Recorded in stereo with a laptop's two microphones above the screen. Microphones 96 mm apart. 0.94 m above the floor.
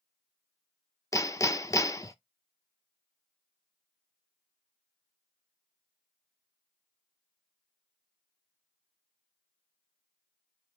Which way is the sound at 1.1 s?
35° left (ahead or behind).